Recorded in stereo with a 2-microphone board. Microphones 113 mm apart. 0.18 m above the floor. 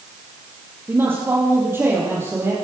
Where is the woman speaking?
20° right (ahead or behind), 4.5 m; by 2.5 s 25° right (ahead or behind), 5.5 m.